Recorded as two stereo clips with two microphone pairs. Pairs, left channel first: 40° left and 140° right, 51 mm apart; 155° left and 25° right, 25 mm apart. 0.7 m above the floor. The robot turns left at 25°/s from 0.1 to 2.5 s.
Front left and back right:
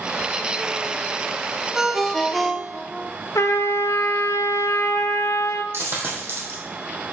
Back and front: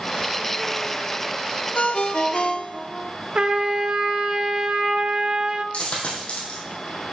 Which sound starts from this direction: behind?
A dropped coin, at 5.7 s.